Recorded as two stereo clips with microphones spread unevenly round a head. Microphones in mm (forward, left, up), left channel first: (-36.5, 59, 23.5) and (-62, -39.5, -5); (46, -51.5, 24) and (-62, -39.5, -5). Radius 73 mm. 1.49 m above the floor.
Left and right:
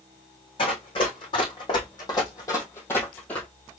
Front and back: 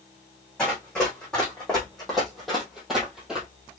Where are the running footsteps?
70° left, 3 m; by 3.5 s 60° left, 1.6 m.